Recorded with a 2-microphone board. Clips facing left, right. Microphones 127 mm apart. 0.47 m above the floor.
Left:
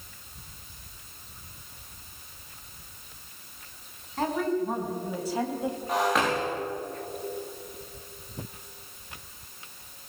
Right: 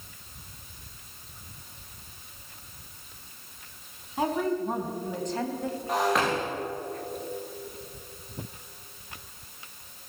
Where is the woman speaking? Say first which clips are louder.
Even; 10° right (ahead or behind), 4.5 m; by 5.8 s 20° left (ahead or behind), 3.5 m.